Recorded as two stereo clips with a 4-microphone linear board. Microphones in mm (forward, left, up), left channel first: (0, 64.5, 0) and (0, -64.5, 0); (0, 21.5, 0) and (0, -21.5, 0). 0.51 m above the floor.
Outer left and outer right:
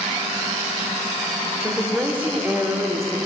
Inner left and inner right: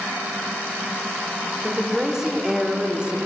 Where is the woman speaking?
10° right (ahead or behind), 2 m; by 3.2 s 25° right (ahead or behind), 1.4 m.